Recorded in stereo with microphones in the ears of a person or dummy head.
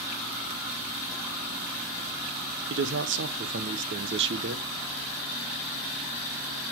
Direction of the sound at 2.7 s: 55° right (ahead or behind).